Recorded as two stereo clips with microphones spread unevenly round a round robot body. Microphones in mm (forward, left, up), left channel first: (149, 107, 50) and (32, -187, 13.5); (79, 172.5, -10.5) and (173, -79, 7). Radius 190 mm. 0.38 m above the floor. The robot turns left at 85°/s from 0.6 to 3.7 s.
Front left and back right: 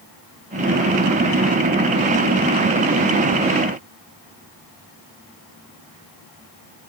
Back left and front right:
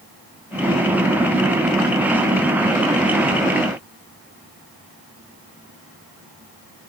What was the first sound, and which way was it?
Only background noise.